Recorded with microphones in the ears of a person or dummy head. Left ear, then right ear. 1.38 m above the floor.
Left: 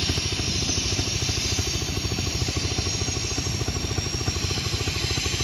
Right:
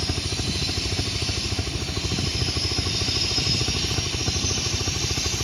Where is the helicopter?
5° right (ahead or behind).